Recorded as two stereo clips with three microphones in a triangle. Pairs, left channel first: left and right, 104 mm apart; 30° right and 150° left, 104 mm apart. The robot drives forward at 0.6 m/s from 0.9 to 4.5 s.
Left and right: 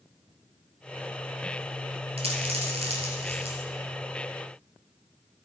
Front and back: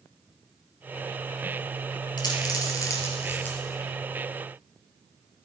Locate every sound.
2.2 s a dropped coin: 75° right, 1.7 m; by 3.6 s 105° right, 1.7 m